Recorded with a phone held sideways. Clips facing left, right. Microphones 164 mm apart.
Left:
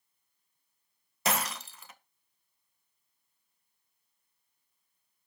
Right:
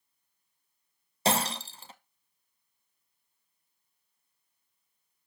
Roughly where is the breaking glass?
Right.